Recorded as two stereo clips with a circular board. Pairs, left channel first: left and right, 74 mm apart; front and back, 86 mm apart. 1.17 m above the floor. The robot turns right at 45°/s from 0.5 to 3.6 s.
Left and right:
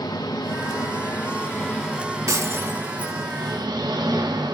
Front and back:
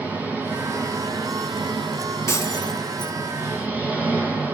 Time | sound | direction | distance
0.0 | an engine running | 110° left | 5.5 m
2.3 | breaking glass | 50° right | 2 m